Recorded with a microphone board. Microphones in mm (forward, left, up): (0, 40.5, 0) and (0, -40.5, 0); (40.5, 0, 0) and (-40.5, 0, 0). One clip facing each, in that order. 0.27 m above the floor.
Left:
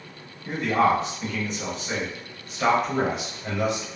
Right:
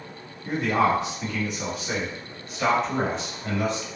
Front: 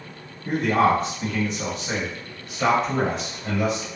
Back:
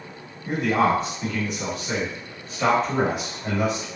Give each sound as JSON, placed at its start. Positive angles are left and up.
{"t": 0.5, "sound": "a man speaking", "azimuth_deg": -20, "distance_m": 1.8}